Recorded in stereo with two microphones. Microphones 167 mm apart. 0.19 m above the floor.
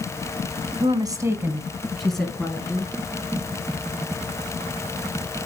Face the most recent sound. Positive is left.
turn(degrees=10)  # may be behind; listen again after turning